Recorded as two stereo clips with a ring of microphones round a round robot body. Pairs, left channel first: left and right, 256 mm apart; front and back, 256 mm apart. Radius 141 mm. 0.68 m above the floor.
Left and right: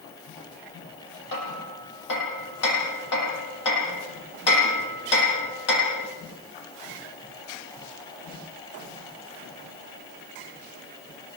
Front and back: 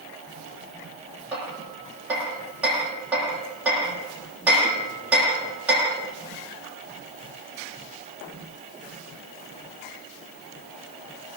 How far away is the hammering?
About 10 m.